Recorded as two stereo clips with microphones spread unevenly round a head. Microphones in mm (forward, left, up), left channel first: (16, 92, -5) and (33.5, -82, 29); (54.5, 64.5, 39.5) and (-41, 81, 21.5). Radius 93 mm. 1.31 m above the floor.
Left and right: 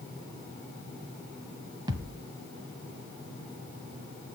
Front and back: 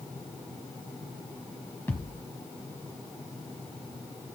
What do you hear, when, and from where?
1.9 s a thud: 55° right, 1.4 m